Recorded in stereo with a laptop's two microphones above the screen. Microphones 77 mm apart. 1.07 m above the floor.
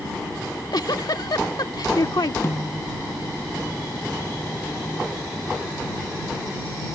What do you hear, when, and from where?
0.4 s a giggle: 60° left (ahead or behind)
2.4 s a snare drum: 40° left (ahead or behind)